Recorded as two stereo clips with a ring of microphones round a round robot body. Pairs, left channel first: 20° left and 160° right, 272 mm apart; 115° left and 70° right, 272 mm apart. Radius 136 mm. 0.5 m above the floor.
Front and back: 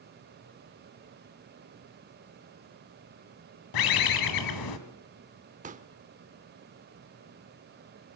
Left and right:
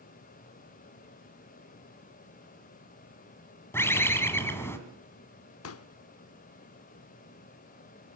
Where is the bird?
30° left, 1.9 m.